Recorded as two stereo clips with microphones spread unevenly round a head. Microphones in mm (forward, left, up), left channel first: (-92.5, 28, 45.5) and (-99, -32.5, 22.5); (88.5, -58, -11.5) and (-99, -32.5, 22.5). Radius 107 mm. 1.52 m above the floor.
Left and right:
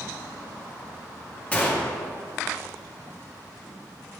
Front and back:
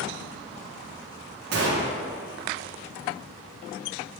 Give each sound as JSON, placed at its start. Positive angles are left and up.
{"t": 1.5, "sound": "a gunshot", "azimuth_deg": 145, "distance_m": 1.1}